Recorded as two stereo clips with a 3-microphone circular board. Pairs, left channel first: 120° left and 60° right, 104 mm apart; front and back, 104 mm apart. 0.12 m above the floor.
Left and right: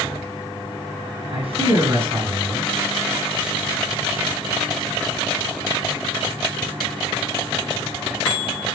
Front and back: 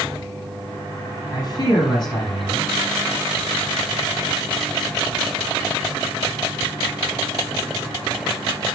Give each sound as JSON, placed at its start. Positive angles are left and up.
{"t": 1.3, "sound": "a man speaking", "azimuth_deg": -40, "distance_m": 5.5}